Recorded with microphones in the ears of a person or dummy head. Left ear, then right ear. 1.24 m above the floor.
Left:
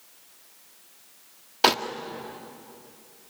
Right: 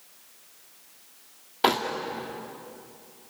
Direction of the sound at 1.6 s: 30° left (ahead or behind).